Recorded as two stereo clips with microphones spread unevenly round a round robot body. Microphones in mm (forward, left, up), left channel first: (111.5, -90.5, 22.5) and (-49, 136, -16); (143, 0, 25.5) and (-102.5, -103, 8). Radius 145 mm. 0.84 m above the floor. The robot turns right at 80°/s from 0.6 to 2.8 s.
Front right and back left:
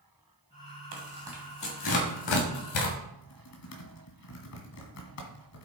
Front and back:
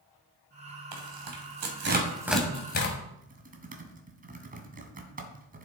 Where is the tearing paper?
Straight behind, 2.5 m; by 3.0 s 30° right, 2.5 m.